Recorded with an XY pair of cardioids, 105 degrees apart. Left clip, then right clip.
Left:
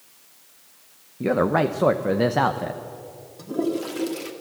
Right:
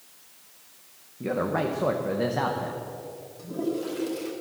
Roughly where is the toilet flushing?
Ahead left.